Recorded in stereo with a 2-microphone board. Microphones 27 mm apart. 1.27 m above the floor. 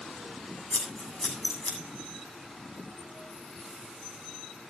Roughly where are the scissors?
Left.